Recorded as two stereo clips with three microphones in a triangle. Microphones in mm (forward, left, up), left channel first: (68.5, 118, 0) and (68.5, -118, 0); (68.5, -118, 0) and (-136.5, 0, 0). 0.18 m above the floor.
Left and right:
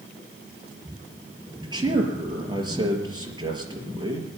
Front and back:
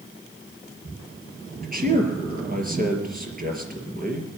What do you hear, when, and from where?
1.6 s a man speaking: 160° right, 4 m